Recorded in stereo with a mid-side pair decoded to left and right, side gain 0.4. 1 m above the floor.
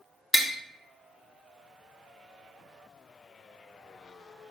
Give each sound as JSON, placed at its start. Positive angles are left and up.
{"t": 0.3, "sound": "tapping", "azimuth_deg": 5, "distance_m": 1.1}